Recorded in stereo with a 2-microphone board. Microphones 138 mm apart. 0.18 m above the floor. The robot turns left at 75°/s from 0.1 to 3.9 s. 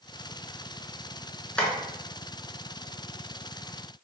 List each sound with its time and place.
1.6 s tapping: 5° left (ahead or behind), 1.1 m; by 1.7 s 15° left (ahead or behind), 1.1 m